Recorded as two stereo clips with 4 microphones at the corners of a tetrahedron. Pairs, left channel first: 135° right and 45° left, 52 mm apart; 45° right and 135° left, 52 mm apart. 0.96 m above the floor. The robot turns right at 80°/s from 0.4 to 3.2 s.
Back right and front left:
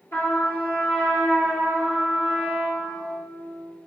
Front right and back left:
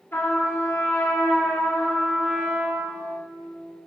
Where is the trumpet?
90° right, 3 m; by 3.0 s 115° left, 3 m.